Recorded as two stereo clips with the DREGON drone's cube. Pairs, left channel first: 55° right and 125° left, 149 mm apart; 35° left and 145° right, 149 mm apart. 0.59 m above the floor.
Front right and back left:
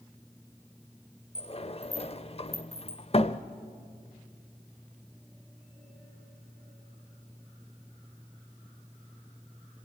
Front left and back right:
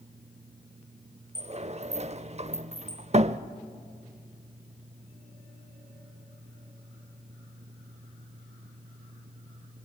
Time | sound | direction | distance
1.4 | a sliding door | 105° right | 0.6 m